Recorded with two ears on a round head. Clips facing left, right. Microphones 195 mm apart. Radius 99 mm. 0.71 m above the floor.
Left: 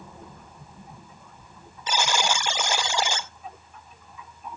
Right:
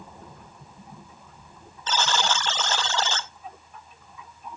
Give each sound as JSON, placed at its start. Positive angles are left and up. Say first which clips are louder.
{"t": 1.9, "sound": "a buzzer", "louder": "even", "side_deg": 10, "distance_m": 0.6}